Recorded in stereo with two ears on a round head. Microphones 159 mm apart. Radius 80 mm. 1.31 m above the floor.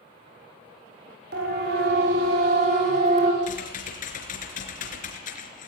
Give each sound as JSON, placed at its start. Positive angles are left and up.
{"t": 1.3, "sound": "a siren", "side_deg": -65, "distance_m": 6.5}
{"t": 3.4, "sound": "typing on a keyboard", "side_deg": 50, "distance_m": 4.0}